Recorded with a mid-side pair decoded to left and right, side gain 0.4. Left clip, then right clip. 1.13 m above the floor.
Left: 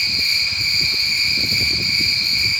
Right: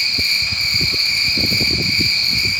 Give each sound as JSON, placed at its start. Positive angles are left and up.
{"t": 0.0, "sound": "an insect", "azimuth_deg": -35, "distance_m": 0.8}